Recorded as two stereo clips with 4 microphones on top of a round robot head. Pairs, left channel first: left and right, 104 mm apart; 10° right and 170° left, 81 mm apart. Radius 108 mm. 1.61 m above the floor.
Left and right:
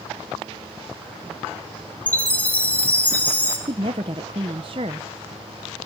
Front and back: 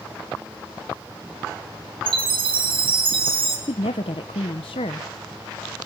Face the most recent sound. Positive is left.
turn(degrees=-40)